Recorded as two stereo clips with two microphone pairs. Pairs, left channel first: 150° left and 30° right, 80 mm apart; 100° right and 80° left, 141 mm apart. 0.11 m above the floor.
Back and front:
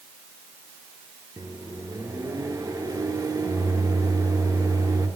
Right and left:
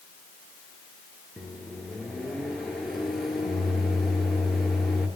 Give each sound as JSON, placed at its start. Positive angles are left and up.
{"t": 1.4, "sound": "a microwave", "azimuth_deg": -10, "distance_m": 1.2}